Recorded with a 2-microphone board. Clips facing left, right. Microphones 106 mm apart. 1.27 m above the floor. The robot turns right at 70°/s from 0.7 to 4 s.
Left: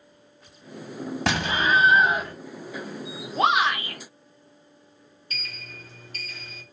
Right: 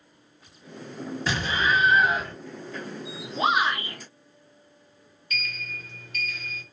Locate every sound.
1.3 s an explosion: 100° left, 1.1 m; by 2.3 s 175° left, 1.1 m
3.4 s a shout: 60° left, 0.7 m; by 4.0 s 105° left, 0.7 m
5.3 s a sliding door: 35° left (ahead or behind), 0.9 m